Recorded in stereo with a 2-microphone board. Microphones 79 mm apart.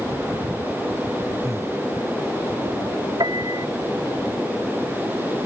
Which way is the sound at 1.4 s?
45° right (ahead or behind).